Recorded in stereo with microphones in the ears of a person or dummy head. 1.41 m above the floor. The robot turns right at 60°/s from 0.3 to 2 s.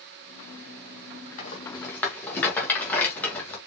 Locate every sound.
1.4 s a rattle: 50° left (ahead or behind), 1.9 m; by 3.6 s 10° left (ahead or behind), 1.9 m